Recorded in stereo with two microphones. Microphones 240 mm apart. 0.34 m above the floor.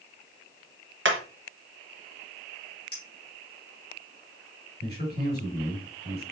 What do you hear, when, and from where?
1.1 s hammering: 55° right (ahead or behind), 0.9 m
2.9 s a clink: 70° left (ahead or behind), 3.5 m
4.8 s a man speaking: 45° left (ahead or behind), 3.5 m